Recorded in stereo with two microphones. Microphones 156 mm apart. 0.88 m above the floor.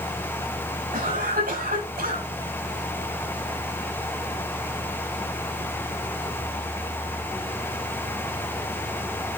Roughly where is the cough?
Right.